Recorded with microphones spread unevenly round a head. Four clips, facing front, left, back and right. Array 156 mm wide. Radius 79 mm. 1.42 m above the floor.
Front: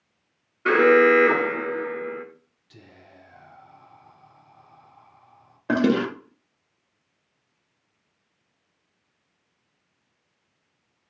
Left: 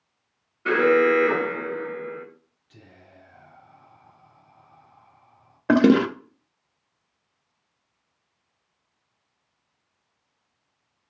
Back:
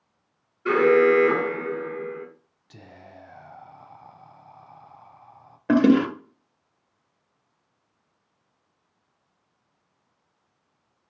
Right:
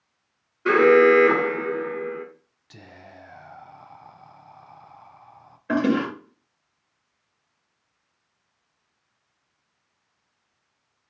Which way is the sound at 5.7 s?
110° left.